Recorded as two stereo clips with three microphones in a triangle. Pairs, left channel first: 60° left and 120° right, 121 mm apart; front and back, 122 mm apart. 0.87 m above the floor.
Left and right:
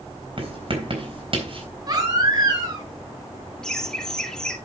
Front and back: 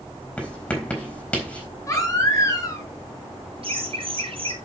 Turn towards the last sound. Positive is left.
turn(degrees=145)